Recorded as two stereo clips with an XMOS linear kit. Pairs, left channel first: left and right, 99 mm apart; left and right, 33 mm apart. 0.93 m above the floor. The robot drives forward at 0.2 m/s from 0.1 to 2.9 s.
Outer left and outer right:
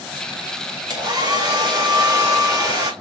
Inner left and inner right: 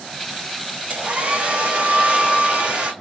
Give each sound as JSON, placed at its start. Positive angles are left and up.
{"t": 0.9, "sound": "a hair dryer", "side_deg": -45, "distance_m": 1.8}